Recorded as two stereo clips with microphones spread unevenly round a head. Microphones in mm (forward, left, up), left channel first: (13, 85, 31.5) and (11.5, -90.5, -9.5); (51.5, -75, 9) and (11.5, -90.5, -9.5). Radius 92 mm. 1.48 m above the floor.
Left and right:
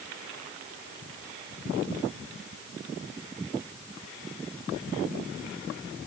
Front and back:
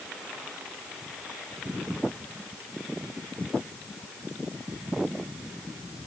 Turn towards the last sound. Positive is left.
No sound to turn to.